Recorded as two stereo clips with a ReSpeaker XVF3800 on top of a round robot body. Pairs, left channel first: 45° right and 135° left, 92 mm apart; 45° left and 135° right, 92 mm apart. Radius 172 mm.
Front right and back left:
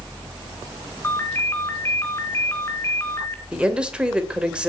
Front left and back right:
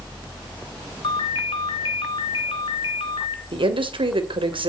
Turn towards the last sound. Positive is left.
turn(degrees=-145)